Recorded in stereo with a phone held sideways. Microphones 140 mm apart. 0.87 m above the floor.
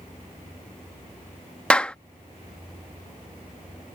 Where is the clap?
10° left (ahead or behind).